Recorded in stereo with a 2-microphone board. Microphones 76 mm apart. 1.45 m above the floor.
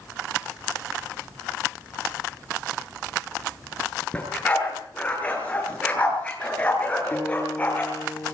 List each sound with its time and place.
4.1 s a dog barking: 20° left (ahead or behind), 8 m
7.1 s a guitar: 30° left (ahead or behind), 5 m